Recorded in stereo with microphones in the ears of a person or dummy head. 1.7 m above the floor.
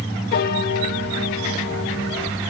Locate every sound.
0.3 s a piano: 50° left (ahead or behind), 2.5 m